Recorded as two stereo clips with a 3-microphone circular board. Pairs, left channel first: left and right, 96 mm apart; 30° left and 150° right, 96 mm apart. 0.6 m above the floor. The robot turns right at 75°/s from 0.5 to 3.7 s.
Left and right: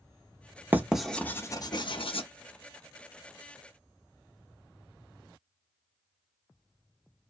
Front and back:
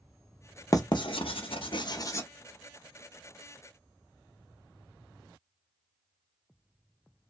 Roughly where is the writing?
Ahead.